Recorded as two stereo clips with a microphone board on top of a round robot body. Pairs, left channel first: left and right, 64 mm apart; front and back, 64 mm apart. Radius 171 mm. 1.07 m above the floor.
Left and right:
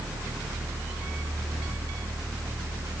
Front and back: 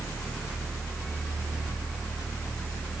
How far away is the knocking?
I don't hear knocking.